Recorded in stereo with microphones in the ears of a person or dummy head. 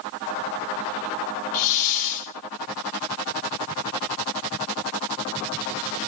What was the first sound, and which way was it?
A hiss, 40° left (ahead or behind).